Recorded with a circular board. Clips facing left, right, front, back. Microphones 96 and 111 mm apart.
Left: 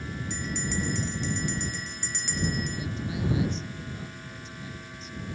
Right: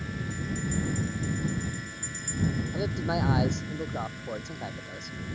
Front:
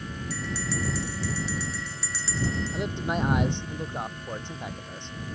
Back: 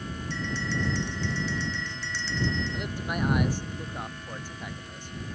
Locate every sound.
0.3 s a bell: 85° left
2.7 s a man speaking: 65° right